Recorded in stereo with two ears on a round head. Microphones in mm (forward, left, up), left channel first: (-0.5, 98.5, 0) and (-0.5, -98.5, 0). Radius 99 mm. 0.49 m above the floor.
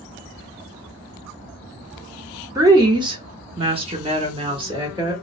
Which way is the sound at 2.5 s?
15° right (ahead or behind).